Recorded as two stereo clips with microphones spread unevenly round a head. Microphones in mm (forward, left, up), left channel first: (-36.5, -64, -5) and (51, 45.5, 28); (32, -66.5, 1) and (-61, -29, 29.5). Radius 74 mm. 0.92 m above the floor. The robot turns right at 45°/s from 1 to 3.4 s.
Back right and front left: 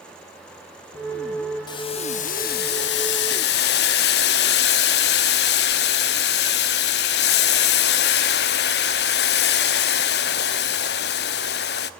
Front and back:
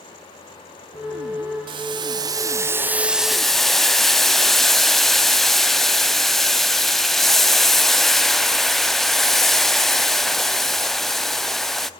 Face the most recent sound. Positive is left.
turn(degrees=-120)